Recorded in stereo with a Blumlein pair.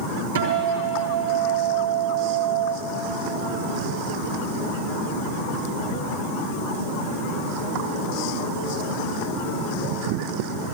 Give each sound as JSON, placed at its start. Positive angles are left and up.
{"t": 0.3, "sound": "a guitar", "azimuth_deg": -65, "distance_m": 5.0}